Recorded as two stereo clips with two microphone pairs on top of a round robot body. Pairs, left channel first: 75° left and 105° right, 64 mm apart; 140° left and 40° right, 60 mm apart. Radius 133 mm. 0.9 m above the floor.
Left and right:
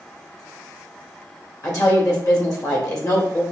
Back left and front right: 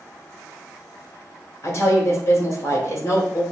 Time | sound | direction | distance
1.6 | a woman speaking | 95° left | 1.8 m